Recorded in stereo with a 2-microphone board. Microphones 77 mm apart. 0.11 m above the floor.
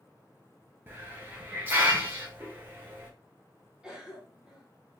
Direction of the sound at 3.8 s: 10° right (ahead or behind).